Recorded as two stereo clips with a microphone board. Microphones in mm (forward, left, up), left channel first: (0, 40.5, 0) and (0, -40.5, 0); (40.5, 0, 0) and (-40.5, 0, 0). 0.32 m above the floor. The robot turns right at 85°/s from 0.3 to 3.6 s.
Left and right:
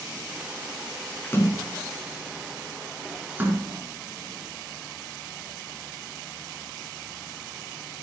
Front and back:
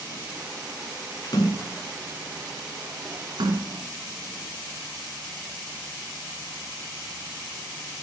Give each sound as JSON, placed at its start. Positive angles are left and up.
{"t": 1.2, "sound": "a splash", "azimuth_deg": 20, "distance_m": 2.0}